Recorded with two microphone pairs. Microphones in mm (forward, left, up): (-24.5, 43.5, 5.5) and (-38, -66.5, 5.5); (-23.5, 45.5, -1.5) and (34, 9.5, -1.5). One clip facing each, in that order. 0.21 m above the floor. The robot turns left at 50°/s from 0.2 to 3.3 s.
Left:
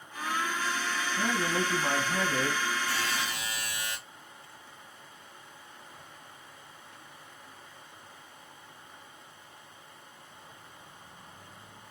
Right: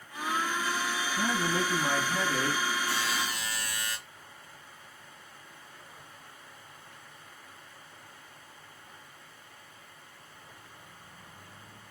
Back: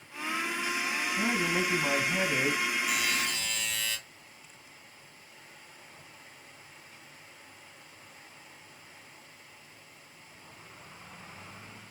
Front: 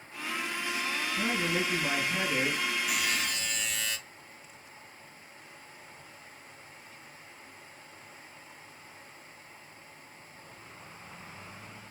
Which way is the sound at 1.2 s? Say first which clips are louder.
Even, back 1 dB; 160° right.